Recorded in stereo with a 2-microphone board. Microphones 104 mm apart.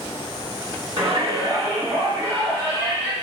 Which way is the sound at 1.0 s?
30° right (ahead or behind).